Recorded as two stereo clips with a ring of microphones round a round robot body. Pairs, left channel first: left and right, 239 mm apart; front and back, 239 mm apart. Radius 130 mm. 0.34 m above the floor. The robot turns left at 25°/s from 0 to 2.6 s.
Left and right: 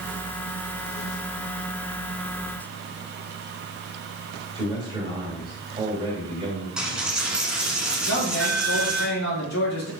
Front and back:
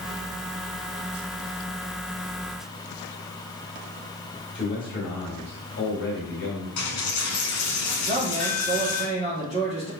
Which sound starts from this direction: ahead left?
A man speaking, at 8.1 s.